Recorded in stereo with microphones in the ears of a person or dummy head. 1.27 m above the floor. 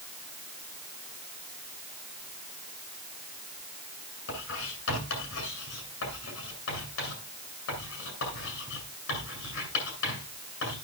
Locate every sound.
4.3 s writing: 80° left, 8.5 m